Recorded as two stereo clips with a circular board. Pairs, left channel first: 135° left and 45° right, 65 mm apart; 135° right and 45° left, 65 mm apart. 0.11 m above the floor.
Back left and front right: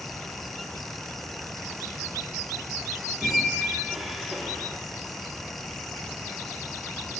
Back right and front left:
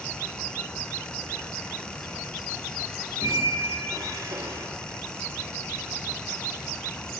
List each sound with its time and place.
3.2 s a squeak: 40° left, 0.7 m